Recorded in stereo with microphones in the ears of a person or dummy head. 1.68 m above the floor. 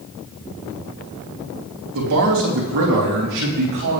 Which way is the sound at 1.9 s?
70° right (ahead or behind).